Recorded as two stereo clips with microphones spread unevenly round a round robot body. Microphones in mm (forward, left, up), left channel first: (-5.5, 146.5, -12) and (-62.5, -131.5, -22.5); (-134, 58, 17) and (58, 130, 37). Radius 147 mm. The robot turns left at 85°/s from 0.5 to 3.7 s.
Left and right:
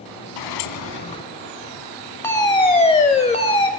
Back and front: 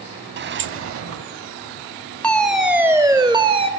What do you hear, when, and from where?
0.4 s a sliding door: 60° left, 0.7 m; by 1.2 s straight ahead, 0.7 m
2.2 s a fire alarm: 150° left, 1.9 m; by 3.7 s 25° left, 1.9 m